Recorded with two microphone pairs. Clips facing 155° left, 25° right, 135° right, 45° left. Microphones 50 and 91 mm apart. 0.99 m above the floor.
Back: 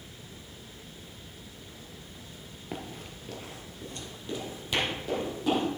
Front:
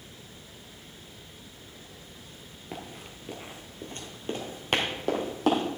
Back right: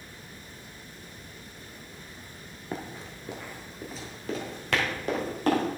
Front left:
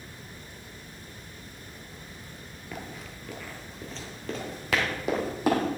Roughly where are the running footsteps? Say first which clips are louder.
Back 1 dB, back right 3 dB; behind right.